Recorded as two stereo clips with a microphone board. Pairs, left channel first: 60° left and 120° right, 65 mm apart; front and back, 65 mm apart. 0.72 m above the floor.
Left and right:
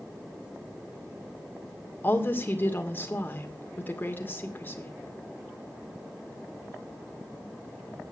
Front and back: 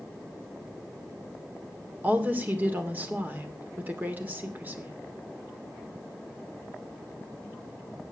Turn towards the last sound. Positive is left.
turn(degrees=120)